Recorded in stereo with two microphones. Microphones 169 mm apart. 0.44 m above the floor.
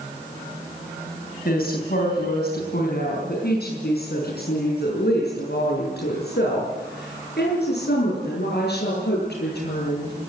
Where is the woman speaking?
65° left (ahead or behind), 3.5 m; by 10.1 s 80° left, 10 m.